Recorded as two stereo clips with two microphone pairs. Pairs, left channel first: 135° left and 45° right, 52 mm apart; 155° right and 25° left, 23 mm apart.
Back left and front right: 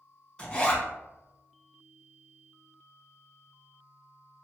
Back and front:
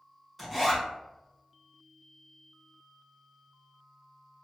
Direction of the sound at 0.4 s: 120° left.